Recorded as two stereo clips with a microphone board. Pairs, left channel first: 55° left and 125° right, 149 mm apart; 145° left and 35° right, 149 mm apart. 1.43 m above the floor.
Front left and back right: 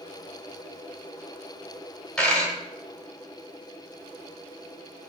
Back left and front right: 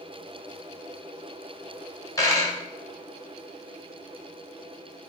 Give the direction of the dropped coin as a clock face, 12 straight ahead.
8 o'clock.